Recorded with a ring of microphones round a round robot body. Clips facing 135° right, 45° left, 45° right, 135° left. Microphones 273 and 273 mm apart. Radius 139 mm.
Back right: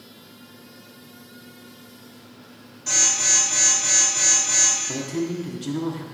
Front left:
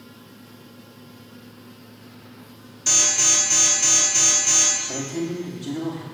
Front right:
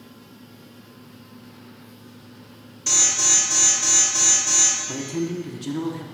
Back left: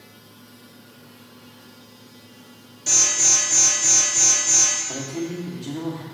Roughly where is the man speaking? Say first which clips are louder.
Back right 1 dB, front right 2 dB; right.